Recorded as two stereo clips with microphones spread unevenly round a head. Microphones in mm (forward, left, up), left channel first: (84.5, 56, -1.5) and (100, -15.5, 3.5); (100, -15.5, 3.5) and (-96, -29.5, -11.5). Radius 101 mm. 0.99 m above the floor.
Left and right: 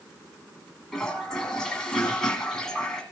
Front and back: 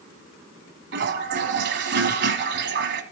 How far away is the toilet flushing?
About 1.2 m.